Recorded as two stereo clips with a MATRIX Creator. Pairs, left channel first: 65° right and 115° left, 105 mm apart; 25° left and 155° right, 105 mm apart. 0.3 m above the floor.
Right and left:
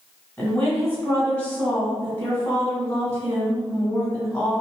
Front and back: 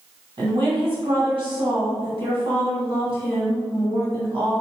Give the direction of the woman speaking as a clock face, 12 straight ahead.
5 o'clock.